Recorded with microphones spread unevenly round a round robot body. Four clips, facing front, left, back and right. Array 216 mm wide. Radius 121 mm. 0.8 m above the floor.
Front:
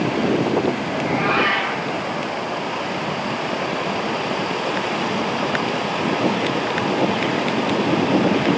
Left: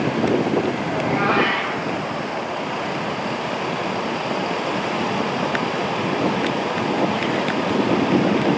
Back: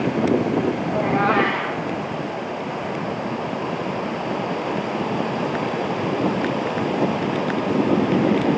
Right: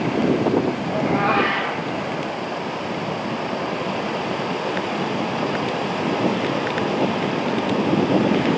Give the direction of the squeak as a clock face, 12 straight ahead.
No squeak in this recording.